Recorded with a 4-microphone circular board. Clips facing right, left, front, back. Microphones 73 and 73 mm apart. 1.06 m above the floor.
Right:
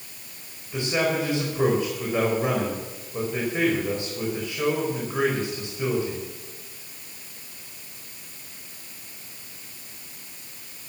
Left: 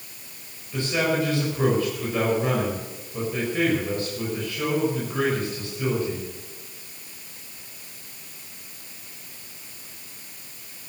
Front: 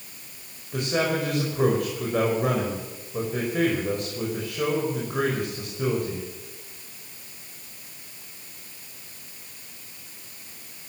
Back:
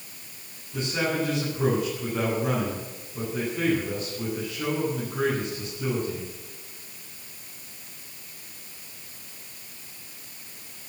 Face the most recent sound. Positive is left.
turn(degrees=-20)